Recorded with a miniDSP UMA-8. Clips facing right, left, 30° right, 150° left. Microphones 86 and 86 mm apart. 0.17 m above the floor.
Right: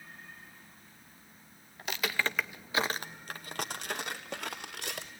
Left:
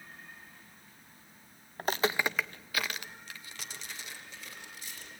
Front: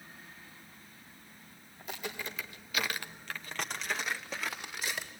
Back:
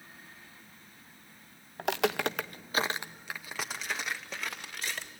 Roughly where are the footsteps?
Behind left.